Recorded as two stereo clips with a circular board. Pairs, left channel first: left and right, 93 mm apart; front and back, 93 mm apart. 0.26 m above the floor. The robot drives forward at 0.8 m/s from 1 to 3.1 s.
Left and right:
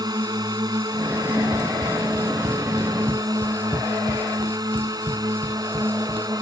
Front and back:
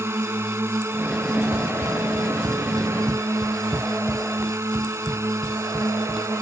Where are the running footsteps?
130° right; by 6.4 s 95° right.